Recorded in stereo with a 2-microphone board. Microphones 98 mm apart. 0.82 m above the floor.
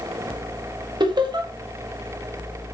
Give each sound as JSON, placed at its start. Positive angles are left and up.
{"t": 1.0, "sound": "laughter", "side_deg": -50, "distance_m": 1.5}